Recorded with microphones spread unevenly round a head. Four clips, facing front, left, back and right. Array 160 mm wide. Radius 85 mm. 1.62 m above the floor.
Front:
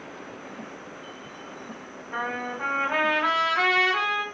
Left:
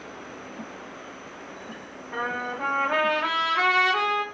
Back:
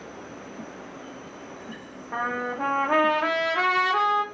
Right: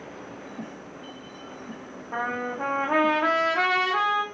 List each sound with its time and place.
2.1 s a trumpet: 140° right, 0.8 m